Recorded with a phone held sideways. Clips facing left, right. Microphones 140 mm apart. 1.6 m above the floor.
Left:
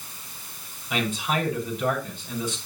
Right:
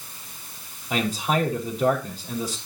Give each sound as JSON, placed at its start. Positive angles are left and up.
{"t": 0.9, "sound": "a man speaking", "side_deg": -35, "distance_m": 5.0}